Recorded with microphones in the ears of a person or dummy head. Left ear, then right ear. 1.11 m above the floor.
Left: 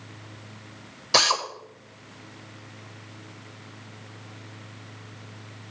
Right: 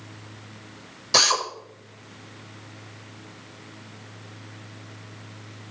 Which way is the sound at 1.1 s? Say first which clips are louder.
Right 1 dB; 10° left (ahead or behind).